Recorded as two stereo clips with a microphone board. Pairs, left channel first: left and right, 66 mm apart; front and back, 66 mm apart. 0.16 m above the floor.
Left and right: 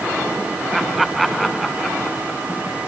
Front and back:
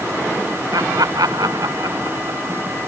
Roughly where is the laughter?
Behind.